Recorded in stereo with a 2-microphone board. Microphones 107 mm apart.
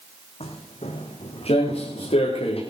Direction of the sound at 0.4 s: 70° left (ahead or behind).